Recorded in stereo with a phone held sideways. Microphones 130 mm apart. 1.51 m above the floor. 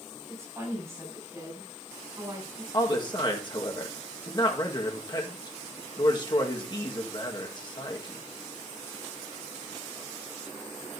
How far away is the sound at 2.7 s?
About 1.6 m.